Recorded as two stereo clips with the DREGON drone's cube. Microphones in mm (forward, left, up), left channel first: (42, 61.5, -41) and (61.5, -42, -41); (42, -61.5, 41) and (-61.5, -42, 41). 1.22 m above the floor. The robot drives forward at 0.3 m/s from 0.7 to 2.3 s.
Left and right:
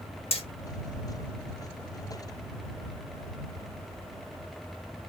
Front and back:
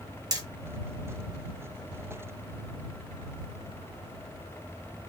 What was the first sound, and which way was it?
Hammering, 115° left.